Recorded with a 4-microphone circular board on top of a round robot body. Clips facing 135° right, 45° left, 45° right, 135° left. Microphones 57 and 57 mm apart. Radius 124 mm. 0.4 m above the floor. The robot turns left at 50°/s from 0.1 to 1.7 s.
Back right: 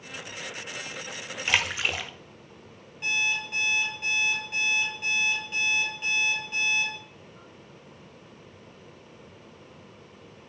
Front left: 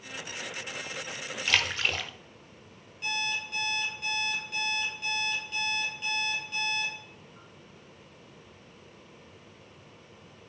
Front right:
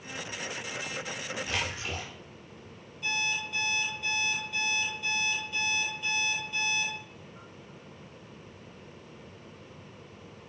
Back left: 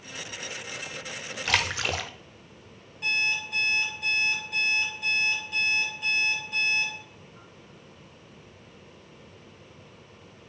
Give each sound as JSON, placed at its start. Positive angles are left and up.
{"t": 1.4, "sound": "a splash", "azimuth_deg": 155, "distance_m": 0.6}
{"t": 3.0, "sound": "an alarm clock", "azimuth_deg": 160, "distance_m": 6.5}